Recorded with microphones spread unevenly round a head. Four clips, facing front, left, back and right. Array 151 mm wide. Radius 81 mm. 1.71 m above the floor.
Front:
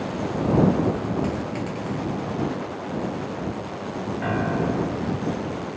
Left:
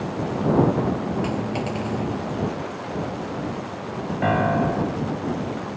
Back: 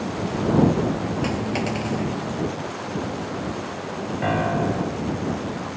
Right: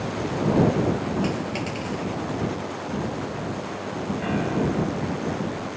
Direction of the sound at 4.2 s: 115° left.